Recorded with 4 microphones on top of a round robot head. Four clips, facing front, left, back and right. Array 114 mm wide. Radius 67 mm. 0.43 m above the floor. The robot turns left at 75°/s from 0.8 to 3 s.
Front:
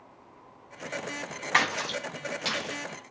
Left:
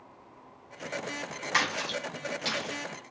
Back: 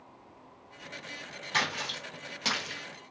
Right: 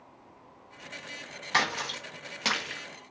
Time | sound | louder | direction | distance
1.5 | a splash | right 1 dB, front 5 dB | 25° right | 0.7 m